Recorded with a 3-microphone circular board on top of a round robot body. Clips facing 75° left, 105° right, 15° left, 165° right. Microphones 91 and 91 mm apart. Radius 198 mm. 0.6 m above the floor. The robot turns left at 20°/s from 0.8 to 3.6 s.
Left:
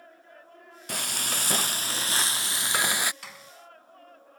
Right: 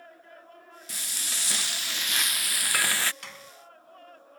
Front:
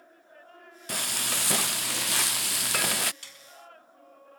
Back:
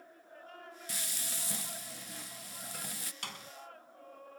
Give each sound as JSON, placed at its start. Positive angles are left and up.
{"t": 0.9, "sound": "frying", "azimuth_deg": 45}
{"t": 3.2, "sound": "a door slam", "azimuth_deg": 165}